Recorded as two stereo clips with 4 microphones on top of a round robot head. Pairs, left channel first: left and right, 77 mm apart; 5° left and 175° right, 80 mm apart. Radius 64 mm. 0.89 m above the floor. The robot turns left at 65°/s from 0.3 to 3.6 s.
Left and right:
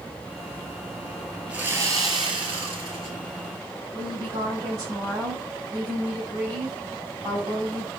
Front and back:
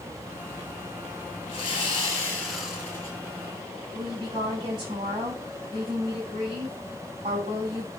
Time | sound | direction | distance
1.5 | sawing | 15° right | 4 m
3.9 | a woman speaking | 145° right | 6.5 m